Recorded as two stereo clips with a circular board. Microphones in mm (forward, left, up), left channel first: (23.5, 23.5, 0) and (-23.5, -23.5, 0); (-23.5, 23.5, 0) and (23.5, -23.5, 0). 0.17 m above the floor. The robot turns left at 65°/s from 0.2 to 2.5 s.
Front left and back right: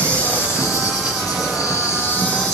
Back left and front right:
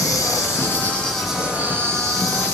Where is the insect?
115° left, 6.5 m; by 2.5 s 35° right, 6.5 m.